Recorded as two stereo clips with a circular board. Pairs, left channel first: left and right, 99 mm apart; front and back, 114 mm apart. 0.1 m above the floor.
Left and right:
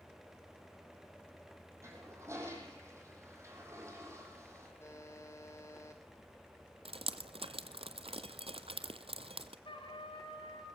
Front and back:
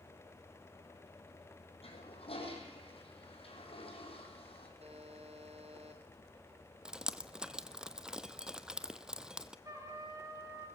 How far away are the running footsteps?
I don't hear running footsteps.